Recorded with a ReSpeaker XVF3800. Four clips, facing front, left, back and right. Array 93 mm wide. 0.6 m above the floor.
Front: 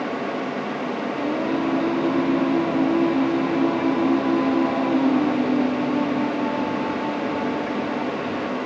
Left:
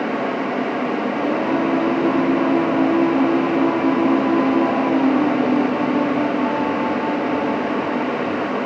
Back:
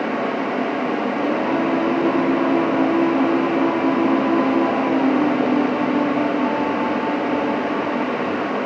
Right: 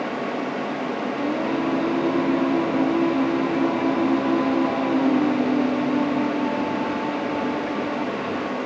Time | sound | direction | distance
1.2 | singing | 135° left | 0.9 m